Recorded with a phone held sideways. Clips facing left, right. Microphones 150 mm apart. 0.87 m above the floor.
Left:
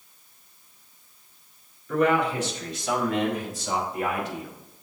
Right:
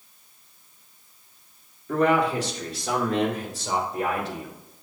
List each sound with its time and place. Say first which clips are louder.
1.9 s a man speaking: right 1 dB; 35° right (ahead or behind), 2 m